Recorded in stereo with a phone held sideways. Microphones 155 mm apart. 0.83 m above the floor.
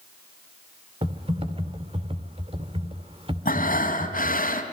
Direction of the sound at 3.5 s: 70° left (ahead or behind).